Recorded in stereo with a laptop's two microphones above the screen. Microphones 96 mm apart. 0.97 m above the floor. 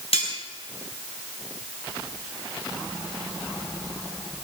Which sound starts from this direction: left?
Cutlery clinking, at 0.1 s.